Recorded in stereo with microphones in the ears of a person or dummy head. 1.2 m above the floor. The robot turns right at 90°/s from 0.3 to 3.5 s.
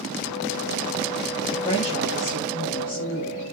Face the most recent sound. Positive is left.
turn(degrees=-150)